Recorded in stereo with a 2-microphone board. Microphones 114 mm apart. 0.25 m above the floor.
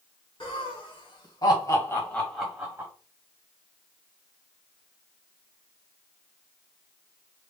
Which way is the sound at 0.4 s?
50° left (ahead or behind).